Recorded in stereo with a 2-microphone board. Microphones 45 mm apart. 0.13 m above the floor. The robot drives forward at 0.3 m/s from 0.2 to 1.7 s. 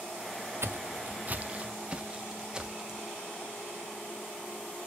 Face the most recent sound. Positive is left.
turn(degrees=-10)  # may be behind; listen again after turning